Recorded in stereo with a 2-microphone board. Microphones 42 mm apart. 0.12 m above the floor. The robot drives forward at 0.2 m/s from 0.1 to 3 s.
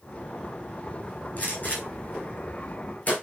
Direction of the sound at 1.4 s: 35° left (ahead or behind).